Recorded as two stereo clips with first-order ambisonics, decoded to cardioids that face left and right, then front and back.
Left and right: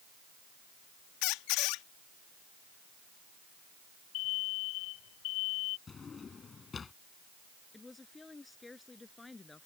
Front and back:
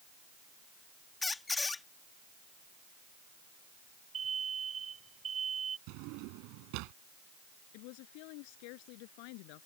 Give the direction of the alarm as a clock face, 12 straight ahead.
8 o'clock.